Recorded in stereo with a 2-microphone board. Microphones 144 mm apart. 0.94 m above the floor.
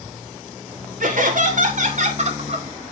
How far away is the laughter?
About 3 m.